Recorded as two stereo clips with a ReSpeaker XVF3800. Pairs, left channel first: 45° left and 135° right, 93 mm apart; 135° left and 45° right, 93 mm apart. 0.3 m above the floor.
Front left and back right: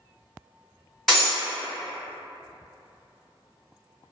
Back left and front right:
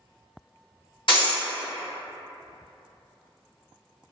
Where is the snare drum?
I don't hear a snare drum.